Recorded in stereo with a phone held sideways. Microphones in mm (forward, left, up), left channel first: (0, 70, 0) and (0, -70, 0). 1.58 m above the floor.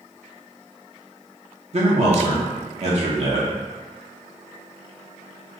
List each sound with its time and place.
1.7 s a man speaking: 55° right (ahead or behind), 0.7 m